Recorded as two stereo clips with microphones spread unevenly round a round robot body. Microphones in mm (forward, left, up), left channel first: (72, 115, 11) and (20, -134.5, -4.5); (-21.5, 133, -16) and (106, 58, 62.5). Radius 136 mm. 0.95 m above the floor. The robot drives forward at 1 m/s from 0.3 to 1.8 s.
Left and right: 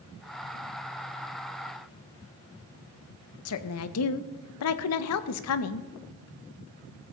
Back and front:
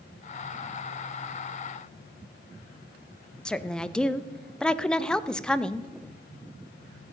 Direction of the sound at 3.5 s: 90° left.